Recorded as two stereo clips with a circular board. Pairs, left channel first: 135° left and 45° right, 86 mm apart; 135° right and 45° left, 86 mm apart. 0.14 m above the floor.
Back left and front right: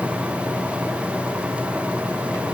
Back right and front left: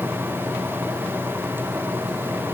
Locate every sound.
Only background noise.